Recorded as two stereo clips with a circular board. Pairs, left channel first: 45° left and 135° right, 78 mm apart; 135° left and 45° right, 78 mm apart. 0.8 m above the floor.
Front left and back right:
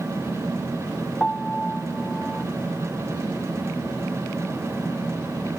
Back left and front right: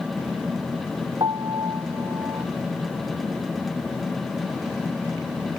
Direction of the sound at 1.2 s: 30° right.